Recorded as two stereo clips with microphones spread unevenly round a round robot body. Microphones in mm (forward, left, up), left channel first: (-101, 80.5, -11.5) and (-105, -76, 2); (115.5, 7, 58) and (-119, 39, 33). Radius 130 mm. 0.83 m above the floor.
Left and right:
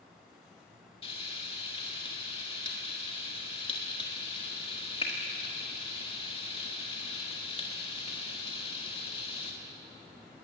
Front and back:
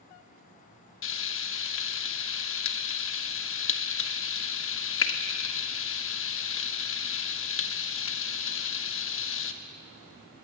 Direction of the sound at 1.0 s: 25° left.